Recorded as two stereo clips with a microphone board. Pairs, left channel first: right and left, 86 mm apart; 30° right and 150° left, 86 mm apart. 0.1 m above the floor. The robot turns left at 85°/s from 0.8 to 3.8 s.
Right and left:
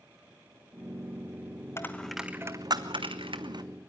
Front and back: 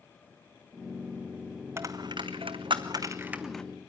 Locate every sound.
1.8 s a dropped coin: 150° right, 1.0 m; by 3.6 s 50° left, 1.0 m